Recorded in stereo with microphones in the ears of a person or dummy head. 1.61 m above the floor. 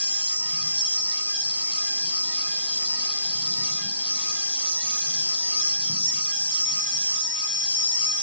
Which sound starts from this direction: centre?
An insect, at 0.0 s.